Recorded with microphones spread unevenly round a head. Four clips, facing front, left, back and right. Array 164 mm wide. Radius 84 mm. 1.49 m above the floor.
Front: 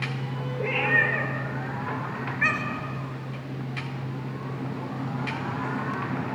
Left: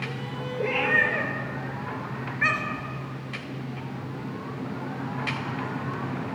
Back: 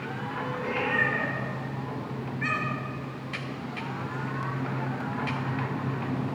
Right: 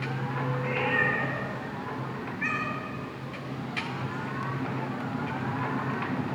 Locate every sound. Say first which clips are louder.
0.6 s a cat meowing: left 5 dB, front 4 dB; 65° left, 5 m; by 2.9 s 50° left, 3.5 m